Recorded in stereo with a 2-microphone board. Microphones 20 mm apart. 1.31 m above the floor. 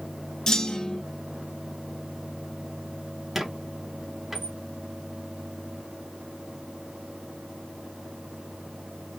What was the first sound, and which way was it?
A clunk, 25° left (ahead or behind).